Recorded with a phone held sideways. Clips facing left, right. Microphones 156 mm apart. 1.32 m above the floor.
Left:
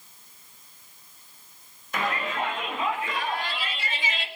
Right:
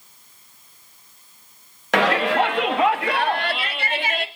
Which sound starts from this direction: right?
A shout, at 1.9 s.